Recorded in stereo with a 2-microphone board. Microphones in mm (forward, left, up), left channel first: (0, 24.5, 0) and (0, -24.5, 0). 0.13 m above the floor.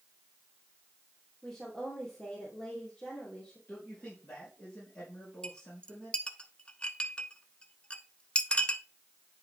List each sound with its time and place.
1.4 s a woman speaking: 25° left (ahead or behind), 3.5 m
3.7 s a man speaking: 45° left (ahead or behind), 4.5 m
5.4 s a clink: 20° left (ahead or behind), 0.6 m